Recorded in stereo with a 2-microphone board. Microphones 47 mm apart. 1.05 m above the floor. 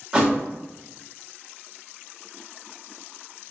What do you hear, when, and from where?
0.1 s a thud: 15° right (ahead or behind), 0.8 m